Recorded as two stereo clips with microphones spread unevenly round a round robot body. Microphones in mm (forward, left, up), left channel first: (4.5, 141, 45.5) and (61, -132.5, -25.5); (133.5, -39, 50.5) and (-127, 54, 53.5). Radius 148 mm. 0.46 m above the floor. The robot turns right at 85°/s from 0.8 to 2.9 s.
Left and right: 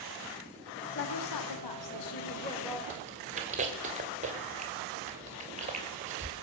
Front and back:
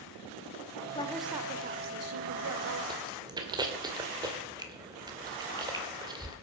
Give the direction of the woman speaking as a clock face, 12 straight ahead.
10 o'clock.